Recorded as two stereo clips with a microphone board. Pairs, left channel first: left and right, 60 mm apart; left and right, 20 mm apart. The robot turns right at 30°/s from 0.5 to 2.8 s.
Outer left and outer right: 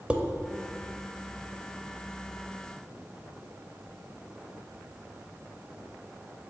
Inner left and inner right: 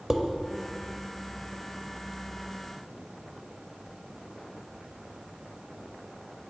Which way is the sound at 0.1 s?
20° right (ahead or behind).